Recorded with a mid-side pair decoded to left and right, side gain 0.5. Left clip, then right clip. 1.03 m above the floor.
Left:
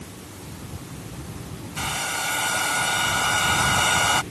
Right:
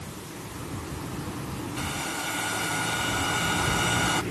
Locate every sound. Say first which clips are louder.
1.8 s a hair dryer: left 6 dB; 40° left